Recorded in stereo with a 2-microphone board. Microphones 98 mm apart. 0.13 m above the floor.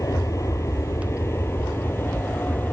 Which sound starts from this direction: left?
An aircraft, at 0.0 s.